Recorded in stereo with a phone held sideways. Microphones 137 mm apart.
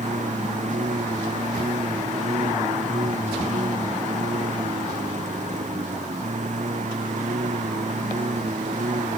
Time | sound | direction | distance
0.0 | a lawn mower | 60° right (ahead or behind) | ?